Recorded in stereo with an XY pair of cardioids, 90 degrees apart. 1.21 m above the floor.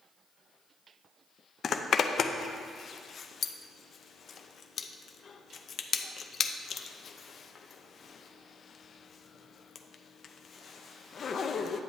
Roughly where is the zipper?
Ahead left.